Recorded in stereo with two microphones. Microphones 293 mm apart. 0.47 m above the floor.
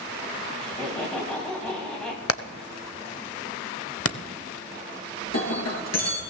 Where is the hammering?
50° left (ahead or behind), 0.7 m.